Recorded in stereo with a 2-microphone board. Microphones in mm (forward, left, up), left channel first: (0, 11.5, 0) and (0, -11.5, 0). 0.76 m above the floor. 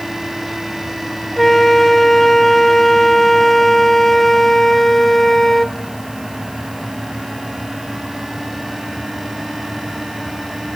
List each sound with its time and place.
1.4 s a flute: 10° left (ahead or behind), 0.7 m